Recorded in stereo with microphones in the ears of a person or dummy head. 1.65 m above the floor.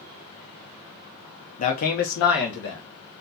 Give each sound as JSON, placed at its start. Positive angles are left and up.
{"t": 1.6, "sound": "a man speaking", "side_deg": 45, "distance_m": 0.6}